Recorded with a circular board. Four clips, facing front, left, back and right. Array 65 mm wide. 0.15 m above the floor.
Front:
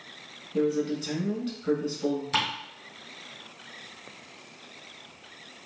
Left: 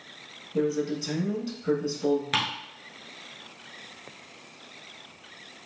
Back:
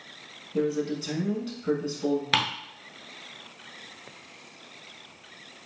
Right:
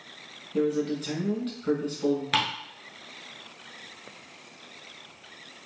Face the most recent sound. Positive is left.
turn(degrees=-170)